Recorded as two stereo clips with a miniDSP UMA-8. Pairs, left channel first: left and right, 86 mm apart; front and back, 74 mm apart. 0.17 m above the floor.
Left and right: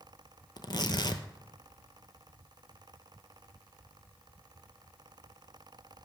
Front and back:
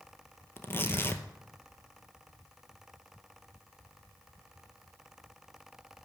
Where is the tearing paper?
60° left, 0.7 m.